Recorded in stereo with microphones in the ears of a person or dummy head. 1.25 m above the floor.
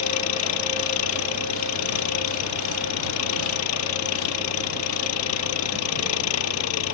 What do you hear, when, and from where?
0.0 s an engine running: 75° left (ahead or behind)